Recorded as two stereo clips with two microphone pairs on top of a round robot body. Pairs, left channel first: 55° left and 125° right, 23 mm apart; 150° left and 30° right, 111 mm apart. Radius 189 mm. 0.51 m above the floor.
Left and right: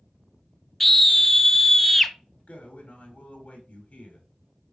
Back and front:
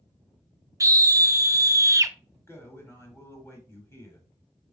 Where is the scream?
10° right, 0.7 m.